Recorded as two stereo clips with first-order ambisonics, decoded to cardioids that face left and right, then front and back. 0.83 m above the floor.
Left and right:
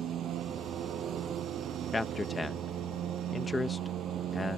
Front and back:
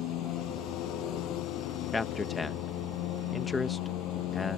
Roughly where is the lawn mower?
Ahead right.